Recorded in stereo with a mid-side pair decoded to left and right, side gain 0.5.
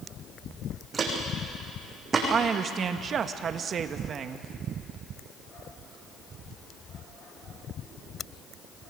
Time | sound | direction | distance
0.9 | footsteps | 35° right | 6 m
2.3 | a woman speaking | 50° right | 1.5 m